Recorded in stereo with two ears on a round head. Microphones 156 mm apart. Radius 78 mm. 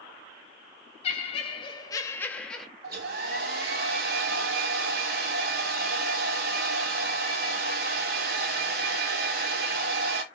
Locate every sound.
1.0 s laughter: 35° left (ahead or behind), 0.8 m; by 2.7 s centre (ahead or behind), 0.9 m
2.8 s a hair dryer: 60° right (ahead or behind), 1.2 m